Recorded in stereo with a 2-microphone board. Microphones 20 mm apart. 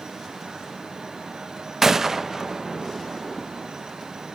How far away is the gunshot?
About 0.5 m.